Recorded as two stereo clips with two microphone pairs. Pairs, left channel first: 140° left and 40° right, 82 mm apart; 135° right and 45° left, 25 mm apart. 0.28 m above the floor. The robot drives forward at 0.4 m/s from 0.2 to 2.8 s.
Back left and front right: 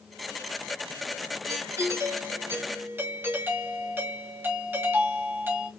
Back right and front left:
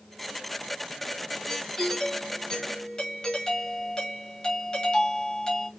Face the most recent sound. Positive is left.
turn(degrees=-90)